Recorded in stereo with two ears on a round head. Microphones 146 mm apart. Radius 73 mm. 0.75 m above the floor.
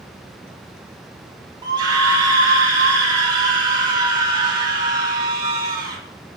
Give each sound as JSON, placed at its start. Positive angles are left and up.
{"t": 1.6, "sound": "a scream", "side_deg": -25, "distance_m": 1.8}